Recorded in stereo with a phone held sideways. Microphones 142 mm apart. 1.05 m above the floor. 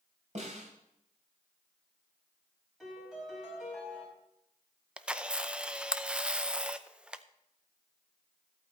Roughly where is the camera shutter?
Centre.